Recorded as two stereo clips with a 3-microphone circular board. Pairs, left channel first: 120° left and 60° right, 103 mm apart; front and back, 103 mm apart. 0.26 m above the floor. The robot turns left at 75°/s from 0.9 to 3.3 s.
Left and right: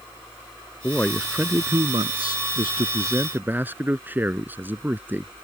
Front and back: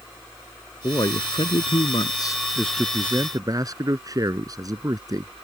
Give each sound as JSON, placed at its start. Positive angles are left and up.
{"t": 0.8, "sound": "a man speaking", "azimuth_deg": 50}